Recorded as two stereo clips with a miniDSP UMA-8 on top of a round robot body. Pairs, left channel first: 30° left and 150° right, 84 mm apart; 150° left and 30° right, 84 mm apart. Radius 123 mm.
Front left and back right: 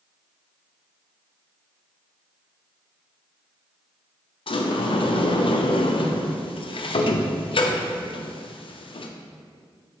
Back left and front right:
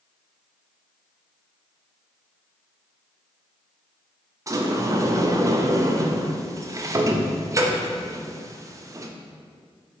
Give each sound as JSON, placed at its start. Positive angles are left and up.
{"t": 4.5, "sound": "a sliding door", "azimuth_deg": 20, "distance_m": 0.7}